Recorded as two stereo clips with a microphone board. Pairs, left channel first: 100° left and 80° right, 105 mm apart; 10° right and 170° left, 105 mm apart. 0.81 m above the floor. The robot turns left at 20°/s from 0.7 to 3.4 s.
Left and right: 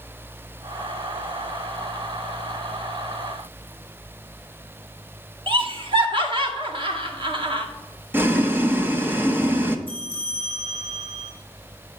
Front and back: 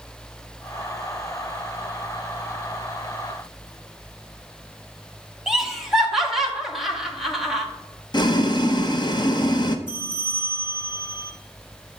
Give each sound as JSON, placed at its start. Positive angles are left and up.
{"t": 5.5, "sound": "laughter", "azimuth_deg": -105, "distance_m": 1.8}
{"t": 8.1, "sound": "boiling", "azimuth_deg": -20, "distance_m": 0.8}
{"t": 9.9, "sound": "a bell", "azimuth_deg": -110, "distance_m": 2.5}